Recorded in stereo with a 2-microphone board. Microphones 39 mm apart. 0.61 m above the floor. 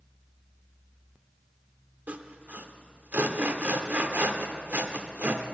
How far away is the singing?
I don't hear singing.